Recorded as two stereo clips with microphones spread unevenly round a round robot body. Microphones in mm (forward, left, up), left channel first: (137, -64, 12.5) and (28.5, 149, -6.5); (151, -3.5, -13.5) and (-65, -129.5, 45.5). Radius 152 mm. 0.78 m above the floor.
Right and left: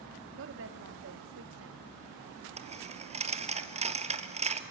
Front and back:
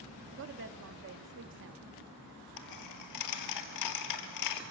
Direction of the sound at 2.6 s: 55° left.